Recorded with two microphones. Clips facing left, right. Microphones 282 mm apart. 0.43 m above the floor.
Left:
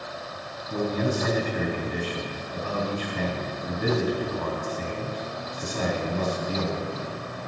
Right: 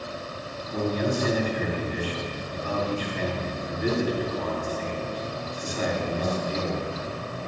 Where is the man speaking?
60° left (ahead or behind), 2.5 m.